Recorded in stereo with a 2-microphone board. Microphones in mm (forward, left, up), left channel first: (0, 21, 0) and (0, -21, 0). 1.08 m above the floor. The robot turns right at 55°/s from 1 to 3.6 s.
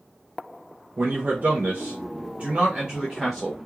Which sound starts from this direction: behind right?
A man speaking, at 1.0 s.